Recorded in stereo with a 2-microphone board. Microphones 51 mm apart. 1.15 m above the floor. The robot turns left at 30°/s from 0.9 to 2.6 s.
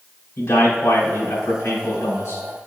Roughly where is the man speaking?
Behind left.